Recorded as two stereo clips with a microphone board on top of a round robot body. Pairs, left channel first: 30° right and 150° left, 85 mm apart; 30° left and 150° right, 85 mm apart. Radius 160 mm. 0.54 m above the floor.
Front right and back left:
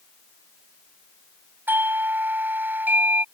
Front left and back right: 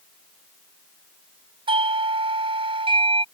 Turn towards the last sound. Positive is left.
turn(degrees=-140)